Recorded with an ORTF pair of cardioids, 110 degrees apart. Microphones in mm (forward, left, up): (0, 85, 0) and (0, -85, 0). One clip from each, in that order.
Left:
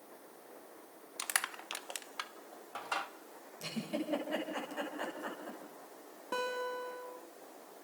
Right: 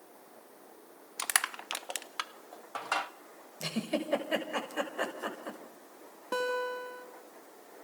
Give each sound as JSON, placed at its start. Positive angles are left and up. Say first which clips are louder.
{"t": 1.2, "sound": "crushing", "louder": "right 5 dB", "azimuth_deg": -25, "distance_m": 1.1}
{"t": 3.6, "sound": "a giggle", "louder": "right 5 dB", "azimuth_deg": -50, "distance_m": 6.5}
{"t": 6.3, "sound": "a guitar", "louder": "right 4 dB", "azimuth_deg": -25, "distance_m": 5.5}